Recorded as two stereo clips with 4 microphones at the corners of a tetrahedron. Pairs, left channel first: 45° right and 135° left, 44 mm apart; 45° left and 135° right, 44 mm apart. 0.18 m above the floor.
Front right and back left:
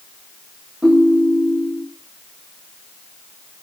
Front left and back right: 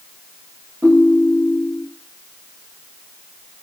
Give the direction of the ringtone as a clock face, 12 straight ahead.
5 o'clock.